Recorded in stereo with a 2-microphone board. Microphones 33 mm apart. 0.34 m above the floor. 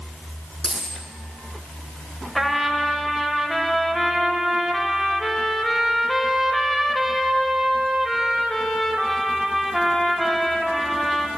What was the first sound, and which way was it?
A dropped coin, 10° right (ahead or behind).